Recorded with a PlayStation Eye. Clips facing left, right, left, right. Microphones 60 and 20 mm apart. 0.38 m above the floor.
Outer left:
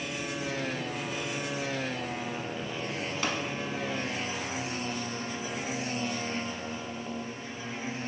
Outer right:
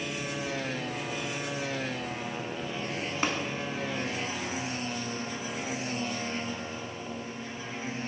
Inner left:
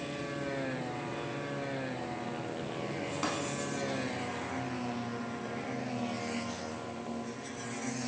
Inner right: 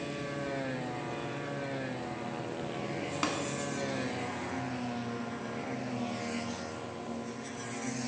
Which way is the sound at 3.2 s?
30° right (ahead or behind).